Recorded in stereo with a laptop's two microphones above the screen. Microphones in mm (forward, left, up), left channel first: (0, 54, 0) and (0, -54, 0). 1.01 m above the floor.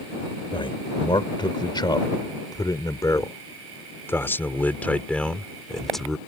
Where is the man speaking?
50° left (ahead or behind); by 6.2 s centre (ahead or behind).